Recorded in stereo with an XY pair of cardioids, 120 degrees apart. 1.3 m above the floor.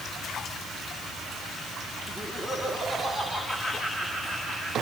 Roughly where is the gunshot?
I don't hear a gunshot.